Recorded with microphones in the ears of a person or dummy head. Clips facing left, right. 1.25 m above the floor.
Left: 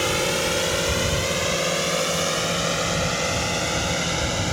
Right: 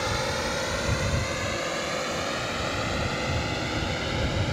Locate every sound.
0.0 s a drone: 45° left (ahead or behind); by 4.5 s 55° left (ahead or behind)